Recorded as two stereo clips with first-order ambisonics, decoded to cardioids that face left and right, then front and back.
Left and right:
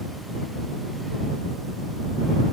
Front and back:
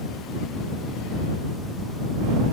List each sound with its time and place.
Only background noise.